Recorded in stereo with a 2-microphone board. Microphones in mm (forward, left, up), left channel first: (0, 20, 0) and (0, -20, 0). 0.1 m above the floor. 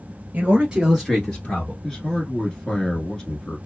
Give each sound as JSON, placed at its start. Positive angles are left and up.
{"t": 0.3, "sound": "a man speaking", "side_deg": -40, "distance_m": 1.3}
{"t": 1.8, "sound": "a man speaking", "side_deg": 15, "distance_m": 1.1}